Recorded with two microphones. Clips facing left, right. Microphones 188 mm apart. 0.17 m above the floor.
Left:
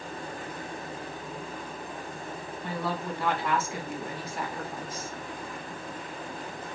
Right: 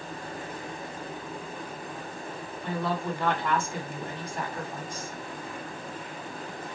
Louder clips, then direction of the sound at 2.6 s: Right 3 dB; 5° left (ahead or behind).